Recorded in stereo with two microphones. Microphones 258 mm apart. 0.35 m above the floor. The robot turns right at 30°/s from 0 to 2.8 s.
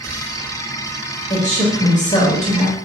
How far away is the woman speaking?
About 1.2 m.